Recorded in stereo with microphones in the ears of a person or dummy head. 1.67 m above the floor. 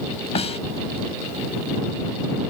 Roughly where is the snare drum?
Left.